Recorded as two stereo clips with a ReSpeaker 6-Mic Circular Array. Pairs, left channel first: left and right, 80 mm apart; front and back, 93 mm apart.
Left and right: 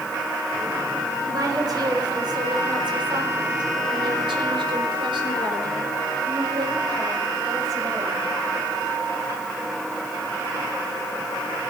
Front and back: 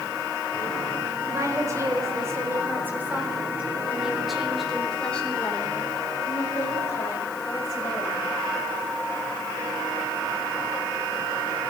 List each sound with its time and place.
1.2 s a woman speaking: 130° right, 5 m; by 8.3 s 45° right, 5.5 m